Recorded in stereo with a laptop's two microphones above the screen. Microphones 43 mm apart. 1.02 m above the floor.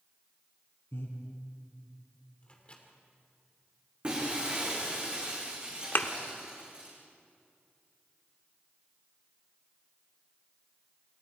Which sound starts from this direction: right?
Breaking glass, at 4.0 s.